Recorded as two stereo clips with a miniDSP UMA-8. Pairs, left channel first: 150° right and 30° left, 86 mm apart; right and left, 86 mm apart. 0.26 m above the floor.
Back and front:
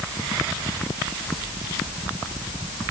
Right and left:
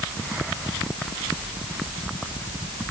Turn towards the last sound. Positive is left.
No sound to turn to.